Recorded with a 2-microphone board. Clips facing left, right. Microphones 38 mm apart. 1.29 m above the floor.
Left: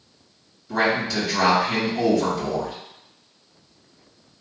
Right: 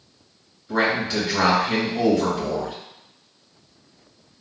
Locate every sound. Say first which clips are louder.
0.7 s a man speaking: even; 35° right (ahead or behind), 2.0 m